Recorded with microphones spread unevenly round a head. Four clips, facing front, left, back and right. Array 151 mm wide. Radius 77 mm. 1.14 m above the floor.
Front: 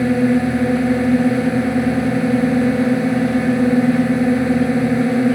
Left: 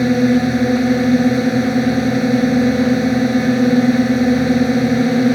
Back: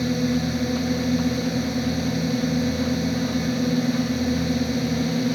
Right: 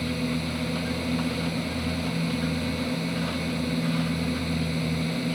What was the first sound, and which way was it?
A drone, 55° left.